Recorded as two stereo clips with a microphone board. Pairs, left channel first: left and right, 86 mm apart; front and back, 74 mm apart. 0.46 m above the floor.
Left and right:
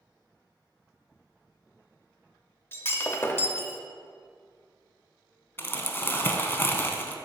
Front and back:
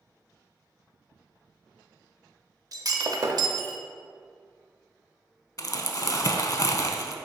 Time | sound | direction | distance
2.7 | breaking glass | 150° left | 0.6 m
5.6 | crumpling | 30° left | 0.6 m